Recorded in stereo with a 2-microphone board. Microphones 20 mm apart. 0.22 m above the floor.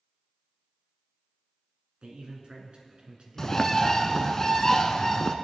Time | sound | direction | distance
2.0 | a man speaking | 60° right (ahead or behind) | 3 m
3.4 | a bird | 30° left (ahead or behind) | 0.7 m